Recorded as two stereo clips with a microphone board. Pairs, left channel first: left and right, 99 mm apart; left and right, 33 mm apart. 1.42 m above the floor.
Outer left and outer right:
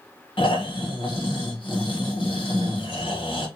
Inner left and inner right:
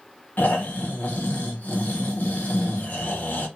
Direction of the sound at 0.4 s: 60° left (ahead or behind).